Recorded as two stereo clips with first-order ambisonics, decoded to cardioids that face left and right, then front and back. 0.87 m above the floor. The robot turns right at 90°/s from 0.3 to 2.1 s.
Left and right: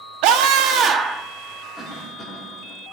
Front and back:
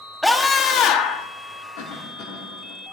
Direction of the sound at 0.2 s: 90° right.